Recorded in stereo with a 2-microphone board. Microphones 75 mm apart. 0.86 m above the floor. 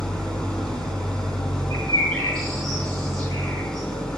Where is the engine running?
10° left (ahead or behind), 3 m.